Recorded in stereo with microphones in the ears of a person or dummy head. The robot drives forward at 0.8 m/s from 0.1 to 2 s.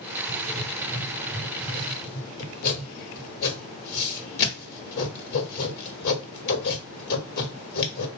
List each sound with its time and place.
0.3 s writing: 30° left (ahead or behind), 2 m; by 8.1 s 60° left (ahead or behind), 1.2 m